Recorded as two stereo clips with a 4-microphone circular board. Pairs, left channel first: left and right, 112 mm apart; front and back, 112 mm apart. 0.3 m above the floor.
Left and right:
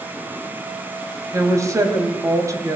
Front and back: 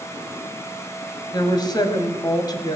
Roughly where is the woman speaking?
Ahead right.